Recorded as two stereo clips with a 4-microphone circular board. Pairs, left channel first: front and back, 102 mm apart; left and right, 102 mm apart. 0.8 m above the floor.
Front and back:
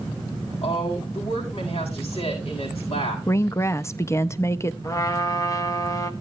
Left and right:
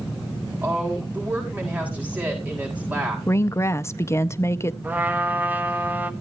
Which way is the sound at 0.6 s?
15° right.